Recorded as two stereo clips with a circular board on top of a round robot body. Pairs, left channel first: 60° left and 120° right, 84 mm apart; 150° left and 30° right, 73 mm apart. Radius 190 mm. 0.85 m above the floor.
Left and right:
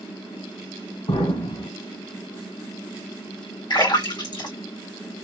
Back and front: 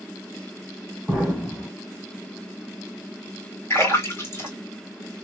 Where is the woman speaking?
I don't hear a woman speaking.